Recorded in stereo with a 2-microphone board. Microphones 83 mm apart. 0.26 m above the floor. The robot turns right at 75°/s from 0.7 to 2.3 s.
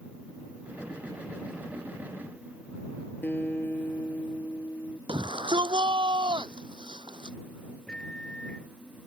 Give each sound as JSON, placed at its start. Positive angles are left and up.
{"t": 3.2, "sound": "a guitar", "side_deg": 25}
{"t": 5.1, "sound": "a shout", "side_deg": -75}
{"t": 7.9, "sound": "a microwave", "side_deg": 10}